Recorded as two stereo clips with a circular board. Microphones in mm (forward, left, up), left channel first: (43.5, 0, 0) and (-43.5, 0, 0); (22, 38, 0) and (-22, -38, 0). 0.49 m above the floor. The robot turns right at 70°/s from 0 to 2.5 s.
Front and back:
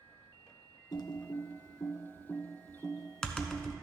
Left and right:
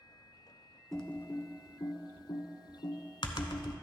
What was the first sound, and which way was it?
Typing on a keyboard, 30° right.